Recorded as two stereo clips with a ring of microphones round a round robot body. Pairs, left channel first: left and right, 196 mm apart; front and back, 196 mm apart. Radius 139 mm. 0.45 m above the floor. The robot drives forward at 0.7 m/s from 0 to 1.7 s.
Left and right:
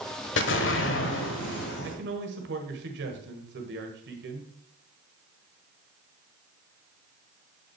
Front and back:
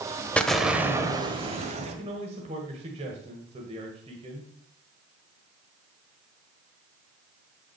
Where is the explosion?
85° left, 1.2 m; by 2.0 s 125° left, 1.5 m.